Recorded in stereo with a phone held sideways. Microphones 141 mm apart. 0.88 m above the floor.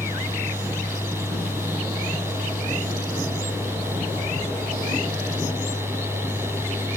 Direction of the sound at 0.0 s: 15° right (ahead or behind).